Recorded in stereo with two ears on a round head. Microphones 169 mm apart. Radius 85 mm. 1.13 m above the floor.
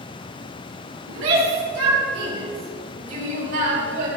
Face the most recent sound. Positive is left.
turn(degrees=-60)  # may be behind; listen again after turning